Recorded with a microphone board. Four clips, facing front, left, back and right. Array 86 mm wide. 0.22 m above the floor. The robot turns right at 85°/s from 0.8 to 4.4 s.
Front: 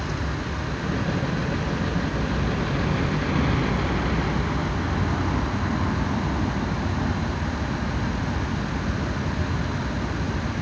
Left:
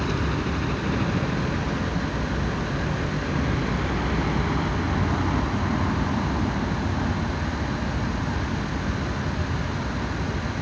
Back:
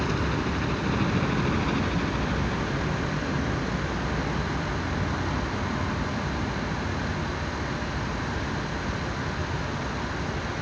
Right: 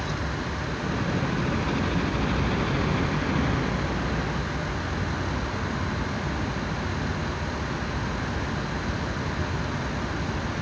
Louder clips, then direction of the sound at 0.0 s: Left 4 dB, back 3 dB; 135° left.